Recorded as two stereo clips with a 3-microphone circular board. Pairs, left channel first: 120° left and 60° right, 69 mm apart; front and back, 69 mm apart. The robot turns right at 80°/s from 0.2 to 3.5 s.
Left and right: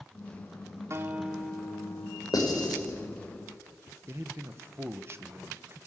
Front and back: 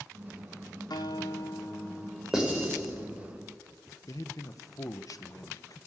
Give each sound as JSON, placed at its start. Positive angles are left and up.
{"t": 0.9, "sound": "a guitar", "azimuth_deg": -15, "distance_m": 1.4}
{"t": 2.3, "sound": "writing", "azimuth_deg": 100, "distance_m": 5.5}
{"t": 4.1, "sound": "a man speaking", "azimuth_deg": -15, "distance_m": 1.0}